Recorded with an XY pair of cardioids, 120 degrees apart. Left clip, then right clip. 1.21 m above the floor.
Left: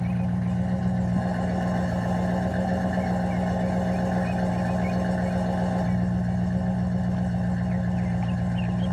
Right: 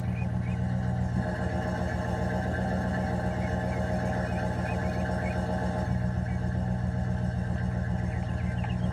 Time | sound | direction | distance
0.0 | an engine running | 45° left | 1.4 m